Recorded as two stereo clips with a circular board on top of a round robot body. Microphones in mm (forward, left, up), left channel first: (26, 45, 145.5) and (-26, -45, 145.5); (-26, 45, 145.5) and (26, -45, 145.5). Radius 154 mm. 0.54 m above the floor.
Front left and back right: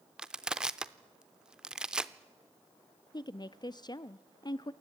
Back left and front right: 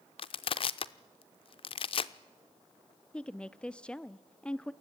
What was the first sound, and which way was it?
Crushing, 155° left.